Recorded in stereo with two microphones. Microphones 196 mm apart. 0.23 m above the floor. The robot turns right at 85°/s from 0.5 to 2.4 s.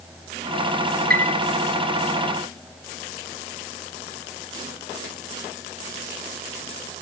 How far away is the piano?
About 0.8 m.